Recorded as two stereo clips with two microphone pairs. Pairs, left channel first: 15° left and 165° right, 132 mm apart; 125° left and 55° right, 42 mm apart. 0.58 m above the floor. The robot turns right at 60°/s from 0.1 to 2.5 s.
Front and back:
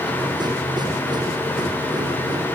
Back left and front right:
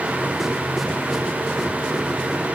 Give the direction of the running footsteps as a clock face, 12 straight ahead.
No running footsteps in this recording.